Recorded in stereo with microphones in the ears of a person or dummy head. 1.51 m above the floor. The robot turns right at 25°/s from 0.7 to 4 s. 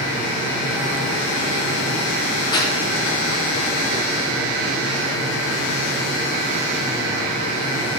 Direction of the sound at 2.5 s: 25° left (ahead or behind).